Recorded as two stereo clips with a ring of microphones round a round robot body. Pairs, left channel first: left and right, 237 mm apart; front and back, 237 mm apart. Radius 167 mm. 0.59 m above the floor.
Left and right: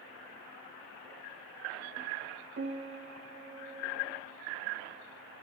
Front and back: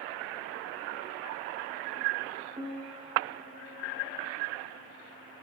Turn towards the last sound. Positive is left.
turn(degrees=-110)